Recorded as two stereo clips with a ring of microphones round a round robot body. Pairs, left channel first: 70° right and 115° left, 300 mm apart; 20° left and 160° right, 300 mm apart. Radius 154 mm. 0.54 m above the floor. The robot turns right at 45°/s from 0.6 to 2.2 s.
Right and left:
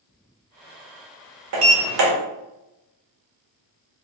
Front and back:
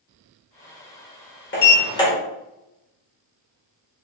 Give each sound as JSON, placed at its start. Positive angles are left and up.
{"t": 1.5, "sound": "a sliding door", "azimuth_deg": 75, "distance_m": 1.4}